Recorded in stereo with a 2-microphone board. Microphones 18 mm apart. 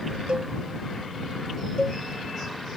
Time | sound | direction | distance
0.3 | a cowbell | 60° right (ahead or behind) | ?
1.8 | a cowbell | 45° left (ahead or behind) | ?